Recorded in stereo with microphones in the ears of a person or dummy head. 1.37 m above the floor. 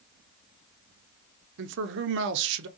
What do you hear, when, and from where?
1.6 s a man speaking: 60° right (ahead or behind), 0.7 m